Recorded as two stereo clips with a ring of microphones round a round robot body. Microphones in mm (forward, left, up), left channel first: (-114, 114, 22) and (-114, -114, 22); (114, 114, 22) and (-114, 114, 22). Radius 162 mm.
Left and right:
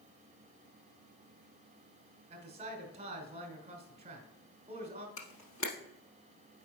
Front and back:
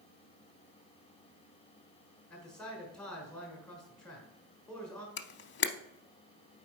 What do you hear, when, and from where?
2.3 s a man speaking: 80° right, 1.3 m
5.2 s a camera shutter: 40° left, 0.6 m